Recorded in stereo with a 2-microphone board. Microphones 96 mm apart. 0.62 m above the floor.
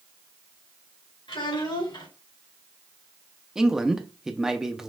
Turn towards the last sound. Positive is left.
turn(degrees=-5)  # may be behind; listen again after turning